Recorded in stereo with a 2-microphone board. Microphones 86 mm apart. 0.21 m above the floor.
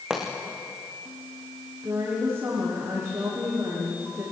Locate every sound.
0.1 s a pop: 10° right (ahead or behind), 6 m
1.8 s a woman speaking: 30° right (ahead or behind), 10 m